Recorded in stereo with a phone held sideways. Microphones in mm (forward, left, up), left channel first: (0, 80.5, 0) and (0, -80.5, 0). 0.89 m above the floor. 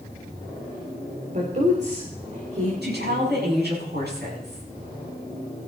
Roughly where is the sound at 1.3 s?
Right.